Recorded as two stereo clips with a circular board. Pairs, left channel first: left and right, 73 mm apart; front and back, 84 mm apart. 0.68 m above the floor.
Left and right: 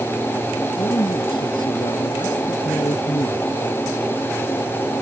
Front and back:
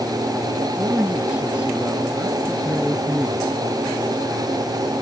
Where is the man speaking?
105° left.